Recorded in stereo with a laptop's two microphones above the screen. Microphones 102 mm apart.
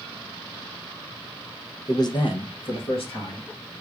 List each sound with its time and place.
1.9 s a man speaking: 35° left (ahead or behind), 0.5 m; by 3.5 s 70° left (ahead or behind), 1.4 m